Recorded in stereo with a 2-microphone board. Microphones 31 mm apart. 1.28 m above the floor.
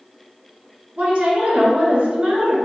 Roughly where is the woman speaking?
Right.